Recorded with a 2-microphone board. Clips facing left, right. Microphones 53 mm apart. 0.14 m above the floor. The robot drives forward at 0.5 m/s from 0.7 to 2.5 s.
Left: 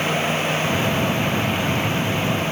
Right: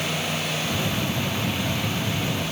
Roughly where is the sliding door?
I don't hear a sliding door.